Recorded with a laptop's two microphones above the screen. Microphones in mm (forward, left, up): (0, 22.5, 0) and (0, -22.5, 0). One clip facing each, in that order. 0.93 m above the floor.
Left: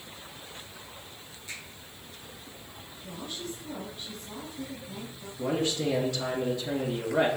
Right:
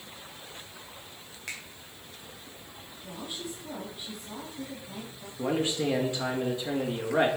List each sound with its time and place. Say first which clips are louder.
1.5 s a finger snap: right 3 dB; 85° right, 2.5 m
3.0 s a woman speaking: even; 15° right (ahead or behind), 2 m
5.4 s a man speaking: even; 25° right (ahead or behind), 1.9 m